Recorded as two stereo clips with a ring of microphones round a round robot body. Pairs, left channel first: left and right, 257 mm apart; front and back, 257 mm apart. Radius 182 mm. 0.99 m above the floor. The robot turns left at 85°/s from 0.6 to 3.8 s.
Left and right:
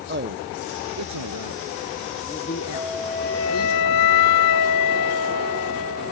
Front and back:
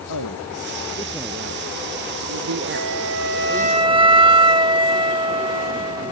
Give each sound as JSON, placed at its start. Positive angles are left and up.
{"t": 0.1, "sound": "a man speaking", "azimuth_deg": -45}
{"t": 2.7, "sound": "a flute", "azimuth_deg": -160}